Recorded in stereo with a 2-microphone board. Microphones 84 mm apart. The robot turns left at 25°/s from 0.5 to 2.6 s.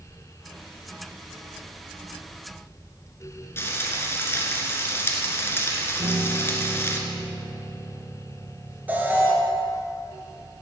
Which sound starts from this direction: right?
A piano, at 6.0 s.